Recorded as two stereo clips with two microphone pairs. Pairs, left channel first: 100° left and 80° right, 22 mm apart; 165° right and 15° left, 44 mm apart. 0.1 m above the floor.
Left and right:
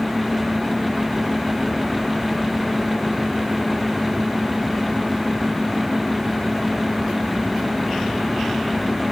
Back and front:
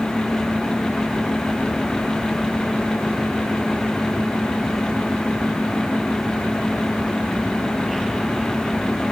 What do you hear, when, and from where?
Only background noise.